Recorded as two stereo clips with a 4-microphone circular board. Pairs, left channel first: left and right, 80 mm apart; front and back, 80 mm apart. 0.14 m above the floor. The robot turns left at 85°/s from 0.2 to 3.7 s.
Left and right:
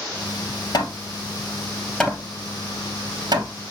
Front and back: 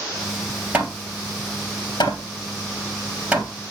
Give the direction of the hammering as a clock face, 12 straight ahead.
8 o'clock.